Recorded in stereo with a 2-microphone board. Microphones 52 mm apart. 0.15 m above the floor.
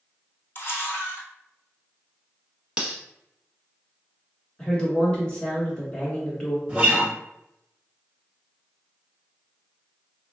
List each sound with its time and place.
0.6 s a camera shutter: 45° left (ahead or behind), 1.1 m
2.8 s cutlery clinking: 20° right (ahead or behind), 0.6 m
4.6 s a woman speaking: 15° left (ahead or behind), 1.4 m
6.7 s a guitar: 20° right (ahead or behind), 1.1 m